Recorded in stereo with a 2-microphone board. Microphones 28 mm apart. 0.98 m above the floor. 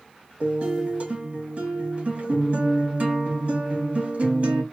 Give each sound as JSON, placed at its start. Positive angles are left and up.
{"t": 0.4, "sound": "a guitar", "side_deg": -55, "distance_m": 1.7}